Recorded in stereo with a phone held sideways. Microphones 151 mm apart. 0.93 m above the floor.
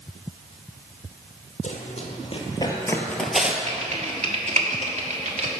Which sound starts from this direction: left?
Running footsteps, at 1.6 s.